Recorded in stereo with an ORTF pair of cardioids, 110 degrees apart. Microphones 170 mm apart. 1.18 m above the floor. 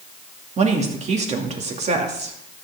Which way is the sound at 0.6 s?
40° right.